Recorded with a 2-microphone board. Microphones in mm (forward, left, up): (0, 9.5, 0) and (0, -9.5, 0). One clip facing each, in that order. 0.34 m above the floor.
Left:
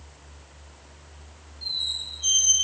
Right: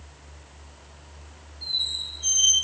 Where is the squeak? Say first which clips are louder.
Right 1 dB; 5° left (ahead or behind), 4.5 m.